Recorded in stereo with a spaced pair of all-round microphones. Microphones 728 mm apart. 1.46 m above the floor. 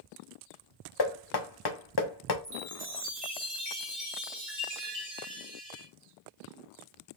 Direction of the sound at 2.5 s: 65° right (ahead or behind).